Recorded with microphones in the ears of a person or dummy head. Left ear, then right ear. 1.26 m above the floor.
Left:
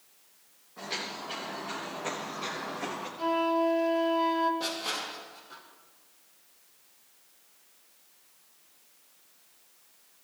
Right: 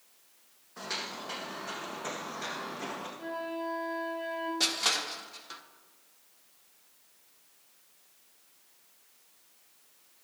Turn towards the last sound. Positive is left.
turn(degrees=-60)  # may be behind; listen again after turning